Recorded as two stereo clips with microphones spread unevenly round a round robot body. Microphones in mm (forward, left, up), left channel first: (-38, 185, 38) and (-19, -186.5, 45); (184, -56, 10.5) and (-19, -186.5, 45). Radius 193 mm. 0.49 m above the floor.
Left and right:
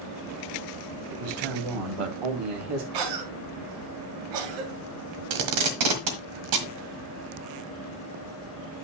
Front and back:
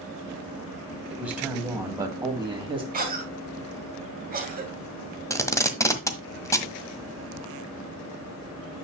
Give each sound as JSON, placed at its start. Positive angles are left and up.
{"t": 1.1, "sound": "a man speaking", "azimuth_deg": -60, "distance_m": 3.0}
{"t": 2.9, "sound": "a cough", "azimuth_deg": -90, "distance_m": 2.5}
{"t": 5.3, "sound": "tape being pulled", "azimuth_deg": -45, "distance_m": 1.6}